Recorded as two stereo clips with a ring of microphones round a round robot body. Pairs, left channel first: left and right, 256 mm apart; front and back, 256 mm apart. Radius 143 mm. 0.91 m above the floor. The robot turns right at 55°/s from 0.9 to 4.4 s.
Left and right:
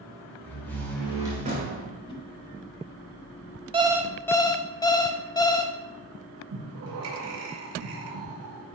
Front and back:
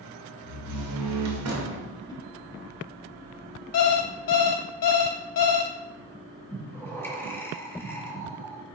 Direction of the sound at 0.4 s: 175° left.